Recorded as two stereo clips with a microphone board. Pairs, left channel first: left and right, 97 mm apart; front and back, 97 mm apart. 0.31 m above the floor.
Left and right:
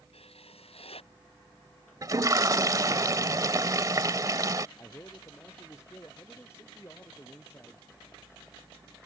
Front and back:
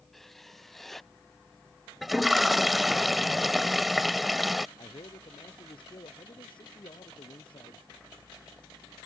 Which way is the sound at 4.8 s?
25° left.